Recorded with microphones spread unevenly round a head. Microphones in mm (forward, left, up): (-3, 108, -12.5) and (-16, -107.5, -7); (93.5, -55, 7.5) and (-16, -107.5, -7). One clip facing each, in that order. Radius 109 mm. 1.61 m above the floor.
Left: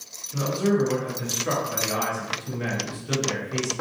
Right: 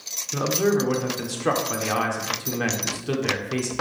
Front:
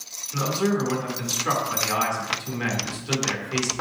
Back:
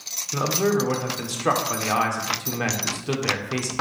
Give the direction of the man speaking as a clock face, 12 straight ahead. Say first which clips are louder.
Right 1 dB, back 2 dB; 4 o'clock.